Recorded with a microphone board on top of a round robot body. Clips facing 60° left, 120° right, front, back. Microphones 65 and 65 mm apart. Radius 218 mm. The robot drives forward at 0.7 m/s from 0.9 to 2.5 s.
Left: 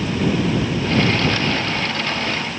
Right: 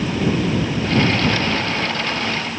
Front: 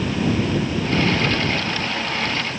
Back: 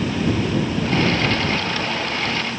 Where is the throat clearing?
I don't hear throat clearing.